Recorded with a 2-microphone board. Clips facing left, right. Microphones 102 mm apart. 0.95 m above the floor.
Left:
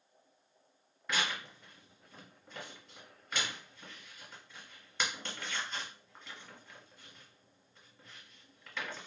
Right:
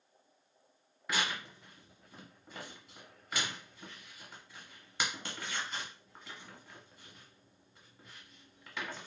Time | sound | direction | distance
1.1 | tearing paper | 10° right (ahead or behind) | 1.1 m